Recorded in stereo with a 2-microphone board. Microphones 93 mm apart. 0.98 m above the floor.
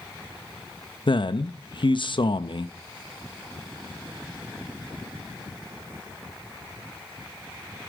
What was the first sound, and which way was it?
A man speaking, 60° left (ahead or behind).